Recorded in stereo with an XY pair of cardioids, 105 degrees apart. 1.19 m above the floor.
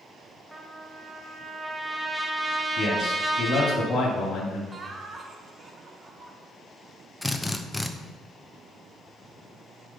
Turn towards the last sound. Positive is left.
turn(degrees=10)